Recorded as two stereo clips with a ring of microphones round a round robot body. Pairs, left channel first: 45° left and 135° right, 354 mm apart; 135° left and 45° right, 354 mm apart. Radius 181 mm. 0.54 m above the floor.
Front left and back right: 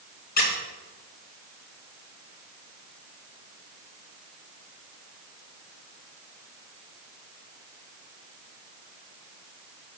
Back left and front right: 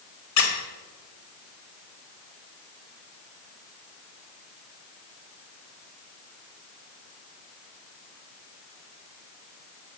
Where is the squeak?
110° left, 1.3 m.